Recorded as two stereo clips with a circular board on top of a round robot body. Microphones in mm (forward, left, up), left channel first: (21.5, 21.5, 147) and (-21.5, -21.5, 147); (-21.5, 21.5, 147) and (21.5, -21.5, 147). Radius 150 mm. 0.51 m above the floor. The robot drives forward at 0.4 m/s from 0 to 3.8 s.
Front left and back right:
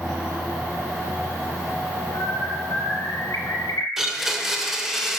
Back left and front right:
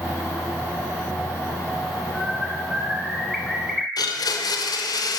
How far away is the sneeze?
No sneeze in this recording.